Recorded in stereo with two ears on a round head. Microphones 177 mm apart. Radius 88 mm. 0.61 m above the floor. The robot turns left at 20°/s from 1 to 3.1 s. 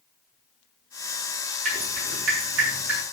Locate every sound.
1.6 s dripping: 40° right (ahead or behind), 7 m; by 3.0 s 65° right (ahead or behind), 7 m